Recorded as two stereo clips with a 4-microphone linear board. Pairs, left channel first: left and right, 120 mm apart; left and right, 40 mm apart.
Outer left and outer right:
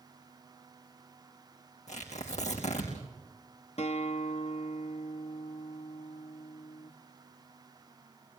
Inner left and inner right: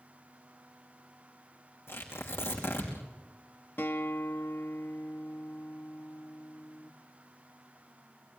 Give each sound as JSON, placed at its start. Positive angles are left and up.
{"t": 1.9, "sound": "tearing paper", "side_deg": 70, "distance_m": 5.0}
{"t": 3.8, "sound": "a guitar", "side_deg": 65, "distance_m": 1.2}